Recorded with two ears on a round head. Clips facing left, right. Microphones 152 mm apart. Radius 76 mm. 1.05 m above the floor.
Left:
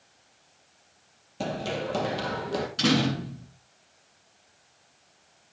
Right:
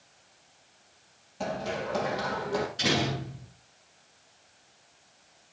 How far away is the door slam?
About 8.5 m.